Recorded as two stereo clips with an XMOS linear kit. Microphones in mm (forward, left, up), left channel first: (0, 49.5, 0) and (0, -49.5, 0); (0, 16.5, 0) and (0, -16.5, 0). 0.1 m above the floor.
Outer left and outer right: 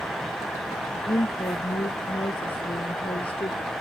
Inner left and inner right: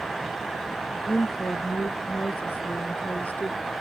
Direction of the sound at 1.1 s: 65° left (ahead or behind).